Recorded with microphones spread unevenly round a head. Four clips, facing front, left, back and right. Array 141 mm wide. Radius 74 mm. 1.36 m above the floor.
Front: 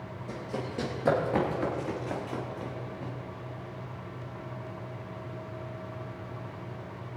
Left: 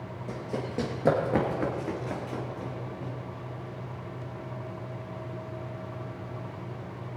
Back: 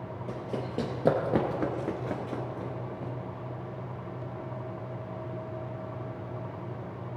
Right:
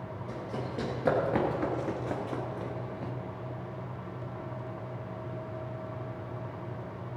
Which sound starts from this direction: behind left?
Running footsteps, at 0.3 s.